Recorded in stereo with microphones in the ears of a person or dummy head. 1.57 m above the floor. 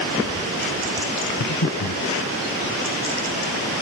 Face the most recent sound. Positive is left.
turn(degrees=70)  # may be behind; listen again after turning